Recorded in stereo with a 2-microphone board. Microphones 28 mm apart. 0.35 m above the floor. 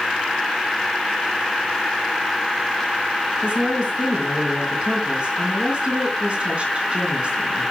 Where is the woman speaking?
40° right (ahead or behind), 3.5 m.